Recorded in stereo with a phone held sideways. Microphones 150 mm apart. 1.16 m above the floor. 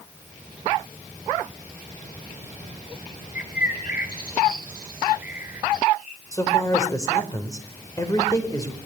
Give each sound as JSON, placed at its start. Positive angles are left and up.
{"t": 3.4, "sound": "a bird", "side_deg": 75, "distance_m": 3.0}
{"t": 6.3, "sound": "a man speaking", "side_deg": 25, "distance_m": 5.0}